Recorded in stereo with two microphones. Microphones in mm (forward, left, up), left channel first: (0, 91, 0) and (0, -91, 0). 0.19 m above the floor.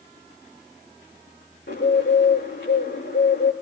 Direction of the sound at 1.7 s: 75° left (ahead or behind).